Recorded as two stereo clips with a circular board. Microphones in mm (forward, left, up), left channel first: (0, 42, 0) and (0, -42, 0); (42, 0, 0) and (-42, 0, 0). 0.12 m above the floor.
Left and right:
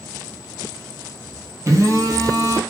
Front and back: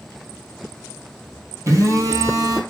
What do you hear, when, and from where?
1.7 s a phone buzzing: 135° right, 0.6 m